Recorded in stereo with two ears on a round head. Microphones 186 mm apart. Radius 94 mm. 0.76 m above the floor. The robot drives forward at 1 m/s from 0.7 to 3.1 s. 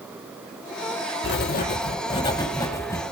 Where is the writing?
55° left (ahead or behind), 0.6 m; by 3.0 s 15° left (ahead or behind), 2.0 m.